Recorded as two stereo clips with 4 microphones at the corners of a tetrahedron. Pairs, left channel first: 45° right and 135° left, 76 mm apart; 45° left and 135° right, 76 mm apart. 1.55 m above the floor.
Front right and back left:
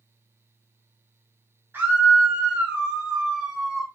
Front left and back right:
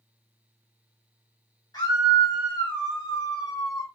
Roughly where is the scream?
Left.